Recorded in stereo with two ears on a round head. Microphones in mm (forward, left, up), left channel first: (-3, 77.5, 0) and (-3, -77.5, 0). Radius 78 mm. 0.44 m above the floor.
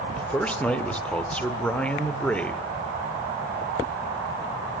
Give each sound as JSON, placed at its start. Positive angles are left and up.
{"t": 0.2, "sound": "a man speaking", "side_deg": 5, "distance_m": 1.6}